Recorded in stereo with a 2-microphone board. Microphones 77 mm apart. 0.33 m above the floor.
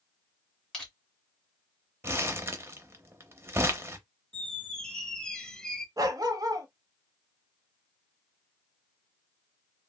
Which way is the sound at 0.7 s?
10° left (ahead or behind).